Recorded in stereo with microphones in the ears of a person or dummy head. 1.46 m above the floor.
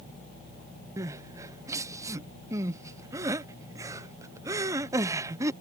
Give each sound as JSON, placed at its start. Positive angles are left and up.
{"t": 1.0, "sound": "crying", "side_deg": -15}